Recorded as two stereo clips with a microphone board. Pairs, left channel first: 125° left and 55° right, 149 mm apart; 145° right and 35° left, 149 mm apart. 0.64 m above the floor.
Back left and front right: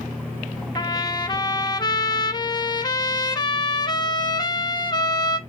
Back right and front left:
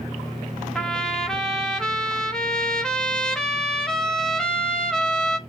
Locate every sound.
0.8 s a trumpet: 135° left, 0.7 m